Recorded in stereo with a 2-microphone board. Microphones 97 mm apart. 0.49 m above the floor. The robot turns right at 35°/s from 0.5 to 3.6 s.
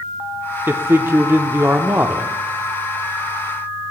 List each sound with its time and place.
0.7 s a man speaking: 25° right (ahead or behind), 0.8 m; by 2.3 s 20° right (ahead or behind), 0.8 m